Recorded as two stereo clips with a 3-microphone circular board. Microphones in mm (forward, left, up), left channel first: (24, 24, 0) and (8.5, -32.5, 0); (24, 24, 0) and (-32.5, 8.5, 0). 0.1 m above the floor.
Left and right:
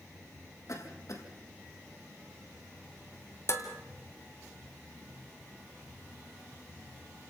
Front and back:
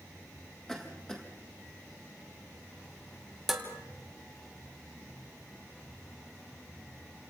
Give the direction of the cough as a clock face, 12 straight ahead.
9 o'clock.